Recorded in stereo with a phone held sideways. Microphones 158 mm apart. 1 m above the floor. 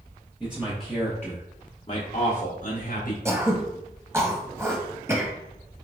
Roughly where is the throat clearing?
Centre.